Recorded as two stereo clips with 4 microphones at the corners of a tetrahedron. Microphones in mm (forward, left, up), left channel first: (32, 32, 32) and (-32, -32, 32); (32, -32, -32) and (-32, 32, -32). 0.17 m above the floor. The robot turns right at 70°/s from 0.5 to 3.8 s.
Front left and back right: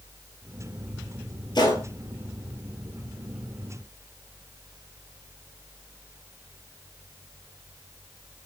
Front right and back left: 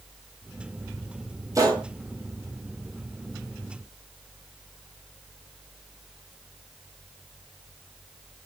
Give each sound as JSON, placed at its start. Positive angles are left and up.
{"t": 1.6, "sound": "a gunshot", "azimuth_deg": 80, "distance_m": 0.7}